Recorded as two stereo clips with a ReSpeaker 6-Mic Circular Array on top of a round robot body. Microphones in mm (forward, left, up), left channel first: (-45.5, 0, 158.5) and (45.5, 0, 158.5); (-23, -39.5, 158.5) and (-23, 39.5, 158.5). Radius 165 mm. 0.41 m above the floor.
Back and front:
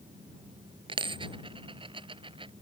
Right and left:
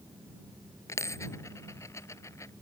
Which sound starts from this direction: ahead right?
A dropped coin, at 0.9 s.